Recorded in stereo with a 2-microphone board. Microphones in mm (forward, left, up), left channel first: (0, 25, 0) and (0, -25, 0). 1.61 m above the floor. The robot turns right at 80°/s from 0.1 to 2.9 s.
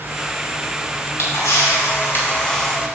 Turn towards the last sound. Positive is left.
turn(degrees=-160)